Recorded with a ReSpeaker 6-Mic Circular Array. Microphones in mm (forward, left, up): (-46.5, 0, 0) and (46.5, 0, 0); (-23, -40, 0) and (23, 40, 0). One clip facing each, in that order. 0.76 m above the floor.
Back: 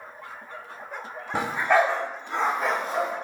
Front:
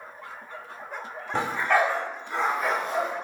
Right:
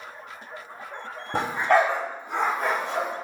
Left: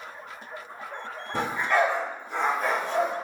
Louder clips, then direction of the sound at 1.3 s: Back 2 dB, right 3 dB; 100° right.